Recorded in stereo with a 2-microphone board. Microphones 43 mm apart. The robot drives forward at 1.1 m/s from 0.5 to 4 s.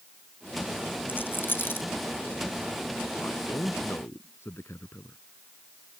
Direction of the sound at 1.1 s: 50° left (ahead or behind).